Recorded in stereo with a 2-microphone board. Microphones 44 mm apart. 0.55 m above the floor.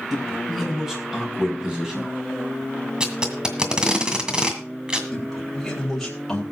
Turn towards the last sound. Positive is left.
turn(degrees=10)  # may be behind; listen again after turning